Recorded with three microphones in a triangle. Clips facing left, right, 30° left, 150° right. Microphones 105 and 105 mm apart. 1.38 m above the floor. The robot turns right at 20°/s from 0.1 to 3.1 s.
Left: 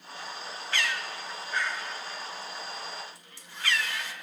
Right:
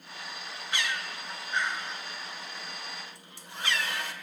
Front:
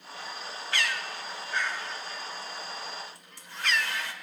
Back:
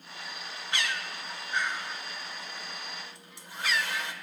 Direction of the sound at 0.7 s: 125° right.